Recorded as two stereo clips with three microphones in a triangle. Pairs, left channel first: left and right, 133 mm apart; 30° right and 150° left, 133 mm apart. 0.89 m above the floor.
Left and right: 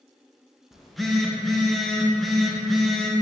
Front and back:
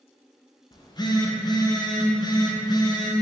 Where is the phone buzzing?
Straight ahead, 0.5 m.